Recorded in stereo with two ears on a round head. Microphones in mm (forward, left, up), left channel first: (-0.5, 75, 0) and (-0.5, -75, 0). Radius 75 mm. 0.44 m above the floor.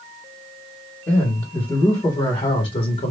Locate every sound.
1.1 s a man speaking: 10° left (ahead or behind), 2 m; by 3.1 s 40° left (ahead or behind), 1.7 m